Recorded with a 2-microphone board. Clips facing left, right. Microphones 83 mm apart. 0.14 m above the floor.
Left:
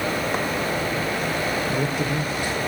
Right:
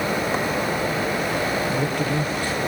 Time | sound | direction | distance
1.7 | a man speaking | 15° left (ahead or behind) | 3 m